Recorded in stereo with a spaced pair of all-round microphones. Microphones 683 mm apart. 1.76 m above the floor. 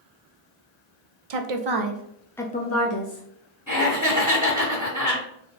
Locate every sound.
1.3 s a woman speaking: 60° right (ahead or behind), 0.7 m; by 3.2 s 40° left (ahead or behind), 0.8 m
3.7 s laughter: 20° left (ahead or behind), 1.8 m